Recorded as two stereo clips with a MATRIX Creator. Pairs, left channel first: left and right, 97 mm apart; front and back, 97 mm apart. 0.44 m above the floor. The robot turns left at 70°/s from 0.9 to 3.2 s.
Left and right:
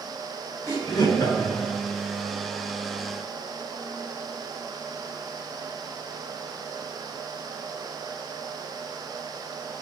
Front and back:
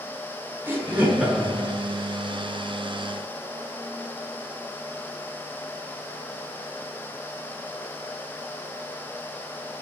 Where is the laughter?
125° left, 1.3 m; by 1.7 s 70° left, 1.3 m.